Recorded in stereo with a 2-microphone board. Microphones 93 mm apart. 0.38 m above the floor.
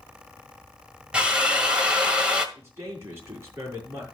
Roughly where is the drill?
Centre.